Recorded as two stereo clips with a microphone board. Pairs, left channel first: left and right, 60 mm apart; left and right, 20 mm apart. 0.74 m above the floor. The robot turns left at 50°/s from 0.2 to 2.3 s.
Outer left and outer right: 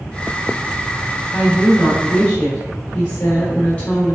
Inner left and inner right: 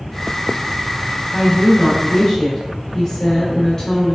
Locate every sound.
1.3 s a woman speaking: 165° right, 1.0 m; by 4.2 s 150° left, 1.0 m